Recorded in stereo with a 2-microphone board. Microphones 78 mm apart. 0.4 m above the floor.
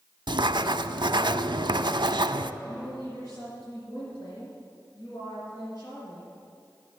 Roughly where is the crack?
No crack in this recording.